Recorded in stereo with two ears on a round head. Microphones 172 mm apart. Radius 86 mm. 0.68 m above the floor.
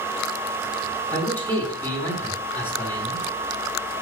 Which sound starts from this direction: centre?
A man speaking, at 1.1 s.